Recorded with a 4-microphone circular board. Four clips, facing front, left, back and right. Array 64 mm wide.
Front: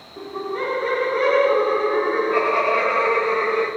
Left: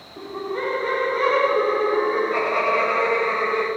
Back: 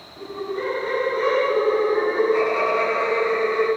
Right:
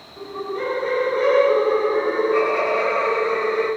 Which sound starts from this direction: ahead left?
Laughter, at 0.2 s.